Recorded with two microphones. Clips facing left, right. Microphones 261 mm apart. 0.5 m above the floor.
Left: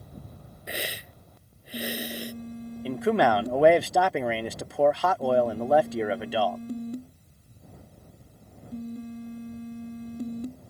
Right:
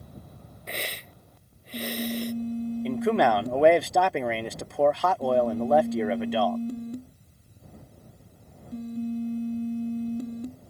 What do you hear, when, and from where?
0.7 s a hiss: 10° left (ahead or behind)
2.9 s a man speaking: 5° left (ahead or behind)